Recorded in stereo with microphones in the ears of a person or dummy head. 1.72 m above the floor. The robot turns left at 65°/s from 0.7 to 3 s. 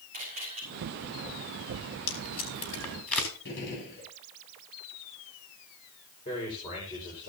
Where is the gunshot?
60° left (ahead or behind), 9 m.